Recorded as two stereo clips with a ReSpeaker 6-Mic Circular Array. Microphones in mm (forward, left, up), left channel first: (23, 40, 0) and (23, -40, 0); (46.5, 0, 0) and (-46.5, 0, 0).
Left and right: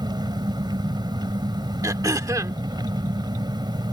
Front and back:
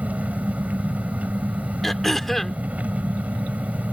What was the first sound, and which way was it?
An engine running, 105° right.